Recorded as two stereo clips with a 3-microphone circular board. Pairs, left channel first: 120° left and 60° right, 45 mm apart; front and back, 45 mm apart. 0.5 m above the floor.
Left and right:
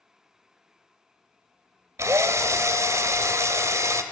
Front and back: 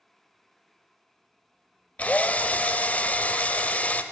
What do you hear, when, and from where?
2.0 s a drill: 60° right, 0.7 m